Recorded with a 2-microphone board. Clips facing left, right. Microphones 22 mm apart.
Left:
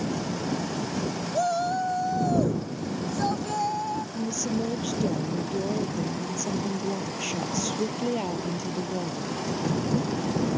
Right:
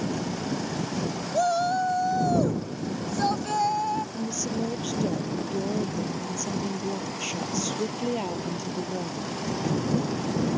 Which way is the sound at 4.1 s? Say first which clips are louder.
Left 1 dB; centre (ahead or behind).